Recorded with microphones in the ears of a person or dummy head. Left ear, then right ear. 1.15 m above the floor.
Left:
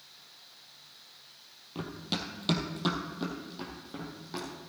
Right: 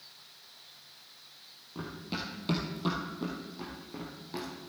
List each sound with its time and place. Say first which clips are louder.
1.8 s running footsteps: left 3 dB; 35° left (ahead or behind), 1.8 m; by 4.5 s 15° left (ahead or behind), 3.5 m